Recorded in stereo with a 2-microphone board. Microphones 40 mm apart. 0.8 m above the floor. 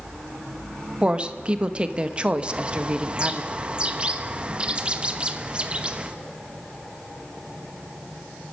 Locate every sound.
1.0 s a woman speaking: 30° right (ahead or behind), 1.1 m
2.4 s a bird: 30° right (ahead or behind), 1.1 m